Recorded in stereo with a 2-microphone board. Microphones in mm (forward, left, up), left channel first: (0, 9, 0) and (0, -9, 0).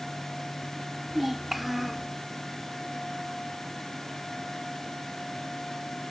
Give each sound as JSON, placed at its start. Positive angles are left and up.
{"t": 1.1, "sound": "a child speaking", "side_deg": -10}